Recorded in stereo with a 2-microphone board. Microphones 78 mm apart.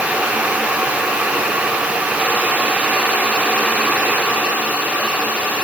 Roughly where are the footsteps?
I don't hear footsteps.